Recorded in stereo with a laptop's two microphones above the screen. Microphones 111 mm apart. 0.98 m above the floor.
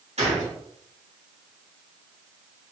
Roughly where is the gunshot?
Right.